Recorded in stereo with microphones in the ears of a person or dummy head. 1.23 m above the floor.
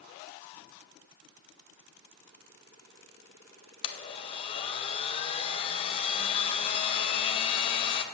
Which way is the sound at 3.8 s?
25° left (ahead or behind).